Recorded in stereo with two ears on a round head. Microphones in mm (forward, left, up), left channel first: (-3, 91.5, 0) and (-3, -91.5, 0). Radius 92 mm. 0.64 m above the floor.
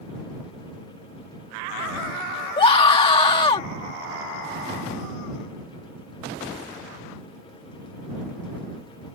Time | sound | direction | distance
2.6 | a scream | 25° left (ahead or behind) | ?